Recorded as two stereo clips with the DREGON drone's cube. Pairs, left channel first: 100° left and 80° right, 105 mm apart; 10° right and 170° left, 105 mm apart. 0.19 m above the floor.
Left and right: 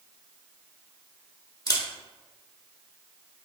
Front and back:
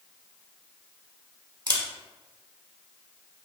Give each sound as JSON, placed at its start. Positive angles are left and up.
{"t": 1.7, "sound": "a camera shutter", "azimuth_deg": 135, "distance_m": 0.6}